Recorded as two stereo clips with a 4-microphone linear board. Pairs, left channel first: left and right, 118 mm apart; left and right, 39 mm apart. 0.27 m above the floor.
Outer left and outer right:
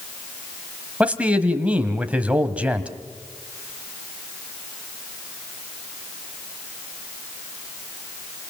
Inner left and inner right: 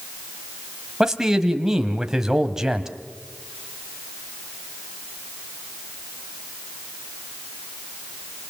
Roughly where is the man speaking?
Centre.